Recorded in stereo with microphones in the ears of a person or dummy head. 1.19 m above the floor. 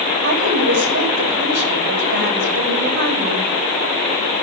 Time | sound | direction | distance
0.2 | a woman speaking | 60° right (ahead or behind) | 2.5 m